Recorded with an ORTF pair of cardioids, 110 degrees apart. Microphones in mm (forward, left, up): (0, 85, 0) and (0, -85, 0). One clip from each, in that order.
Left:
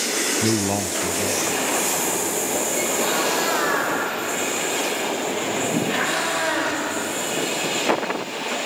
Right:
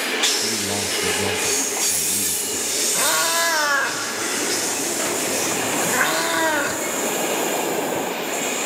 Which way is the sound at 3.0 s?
55° right.